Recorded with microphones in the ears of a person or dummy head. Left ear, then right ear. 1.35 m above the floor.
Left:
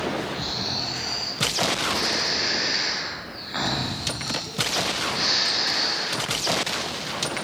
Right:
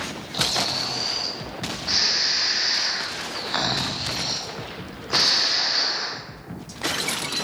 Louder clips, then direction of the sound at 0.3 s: Right 4 dB; 50° right (ahead or behind).